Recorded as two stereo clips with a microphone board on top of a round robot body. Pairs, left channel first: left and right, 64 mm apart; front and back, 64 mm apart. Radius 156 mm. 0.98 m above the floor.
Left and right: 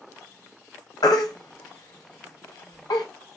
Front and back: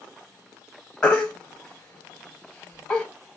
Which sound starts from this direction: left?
A baby crying, at 1.0 s.